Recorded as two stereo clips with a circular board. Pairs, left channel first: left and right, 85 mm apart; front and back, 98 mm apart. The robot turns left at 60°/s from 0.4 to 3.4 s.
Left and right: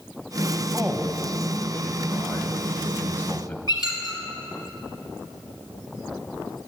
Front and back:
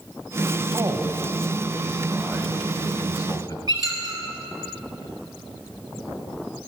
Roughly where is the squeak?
Behind right.